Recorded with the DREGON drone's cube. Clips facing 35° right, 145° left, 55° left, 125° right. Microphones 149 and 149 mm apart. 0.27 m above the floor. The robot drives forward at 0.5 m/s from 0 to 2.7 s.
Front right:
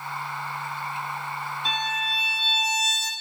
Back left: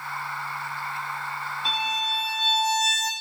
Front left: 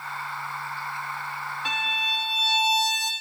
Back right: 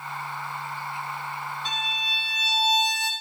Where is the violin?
55° left, 0.5 m; by 3.1 s 125° left, 0.5 m.